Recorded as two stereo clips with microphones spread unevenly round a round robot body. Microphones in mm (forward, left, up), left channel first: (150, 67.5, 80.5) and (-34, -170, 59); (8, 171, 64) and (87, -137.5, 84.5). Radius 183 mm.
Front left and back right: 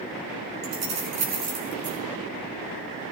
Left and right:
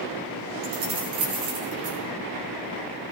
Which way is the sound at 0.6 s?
95° right.